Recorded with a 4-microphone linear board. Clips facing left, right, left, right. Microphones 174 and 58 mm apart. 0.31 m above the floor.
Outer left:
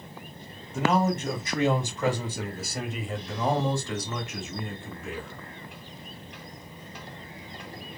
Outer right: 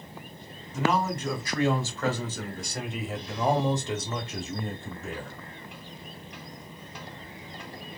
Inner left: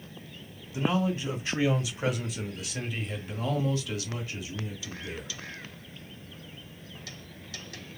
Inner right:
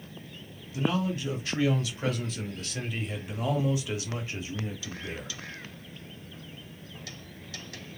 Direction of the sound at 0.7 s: 25° left (ahead or behind).